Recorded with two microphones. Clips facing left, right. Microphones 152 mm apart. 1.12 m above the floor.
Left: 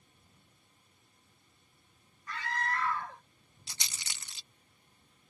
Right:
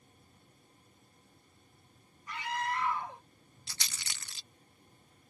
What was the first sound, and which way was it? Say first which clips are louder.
A scream: right 1 dB; 20° right (ahead or behind).